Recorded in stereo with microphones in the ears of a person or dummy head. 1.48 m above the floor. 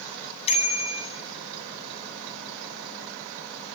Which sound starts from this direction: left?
A bicycle bell, at 0.5 s.